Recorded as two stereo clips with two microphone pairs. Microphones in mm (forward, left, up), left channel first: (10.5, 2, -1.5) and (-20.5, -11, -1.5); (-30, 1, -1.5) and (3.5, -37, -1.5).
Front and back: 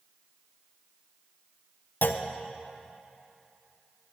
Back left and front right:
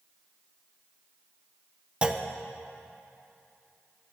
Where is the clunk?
15° left, 0.5 m.